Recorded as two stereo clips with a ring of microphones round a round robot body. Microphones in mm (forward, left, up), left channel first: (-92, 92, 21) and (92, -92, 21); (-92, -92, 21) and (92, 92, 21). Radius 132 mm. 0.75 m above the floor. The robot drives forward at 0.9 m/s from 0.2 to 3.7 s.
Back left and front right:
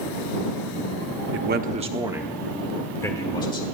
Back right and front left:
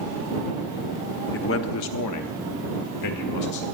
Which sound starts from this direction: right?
A man speaking, at 1.3 s.